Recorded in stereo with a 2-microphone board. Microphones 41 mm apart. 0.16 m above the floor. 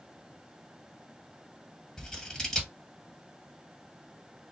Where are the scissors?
10° left (ahead or behind), 1.5 m.